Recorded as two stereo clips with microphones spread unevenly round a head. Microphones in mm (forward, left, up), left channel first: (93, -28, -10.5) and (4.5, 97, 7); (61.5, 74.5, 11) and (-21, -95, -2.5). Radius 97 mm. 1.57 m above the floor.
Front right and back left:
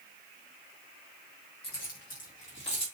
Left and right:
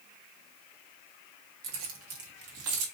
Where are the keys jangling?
100° right, 2 m; by 2.9 s 120° right, 2 m.